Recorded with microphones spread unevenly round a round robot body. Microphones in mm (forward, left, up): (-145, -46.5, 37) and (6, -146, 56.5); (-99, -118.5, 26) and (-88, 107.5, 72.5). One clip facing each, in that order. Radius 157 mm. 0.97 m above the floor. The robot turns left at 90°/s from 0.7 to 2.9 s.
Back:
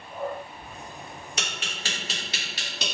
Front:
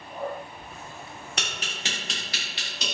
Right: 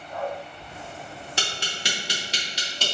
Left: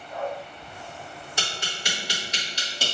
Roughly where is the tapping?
Ahead right.